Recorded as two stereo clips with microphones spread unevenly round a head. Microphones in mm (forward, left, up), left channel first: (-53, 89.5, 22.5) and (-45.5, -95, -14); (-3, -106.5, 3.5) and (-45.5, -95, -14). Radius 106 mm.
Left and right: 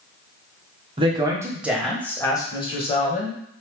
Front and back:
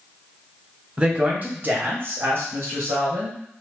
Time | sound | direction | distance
1.0 | a woman speaking | 145° right | 1.1 m